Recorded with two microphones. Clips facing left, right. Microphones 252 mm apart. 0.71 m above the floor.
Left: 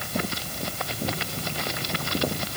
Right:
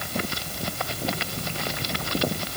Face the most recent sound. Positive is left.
No sound to turn to.